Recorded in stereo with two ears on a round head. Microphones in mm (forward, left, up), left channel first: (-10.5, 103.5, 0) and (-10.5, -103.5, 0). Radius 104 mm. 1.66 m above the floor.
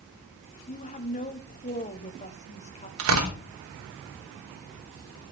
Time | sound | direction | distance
0.7 | a woman speaking | 30° left (ahead or behind) | 1.3 m
3.0 | tearing paper | 60° right (ahead or behind) | 3 m